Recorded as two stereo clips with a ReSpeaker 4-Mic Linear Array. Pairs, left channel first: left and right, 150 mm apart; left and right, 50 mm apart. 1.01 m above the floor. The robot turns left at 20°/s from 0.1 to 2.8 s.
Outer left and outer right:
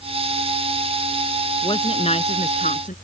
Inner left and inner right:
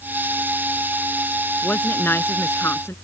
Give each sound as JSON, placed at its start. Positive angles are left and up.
{"t": 1.6, "sound": "a woman speaking", "side_deg": 35}